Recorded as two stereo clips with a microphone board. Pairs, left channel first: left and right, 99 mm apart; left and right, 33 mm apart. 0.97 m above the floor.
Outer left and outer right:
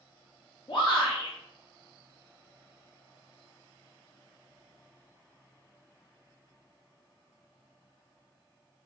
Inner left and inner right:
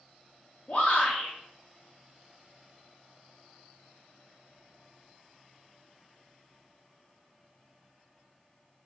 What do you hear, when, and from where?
0.7 s a shout: 45° left (ahead or behind), 0.8 m